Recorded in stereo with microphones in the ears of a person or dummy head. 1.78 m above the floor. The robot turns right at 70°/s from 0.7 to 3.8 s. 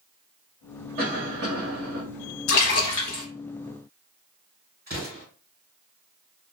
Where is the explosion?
Centre (ahead or behind), 1.7 m.